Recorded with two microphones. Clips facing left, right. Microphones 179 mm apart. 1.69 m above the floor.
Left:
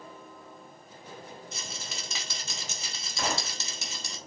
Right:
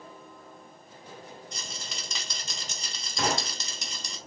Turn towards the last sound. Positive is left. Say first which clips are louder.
# right 3 dB
turn(degrees=-65)  # may be behind; listen again after turning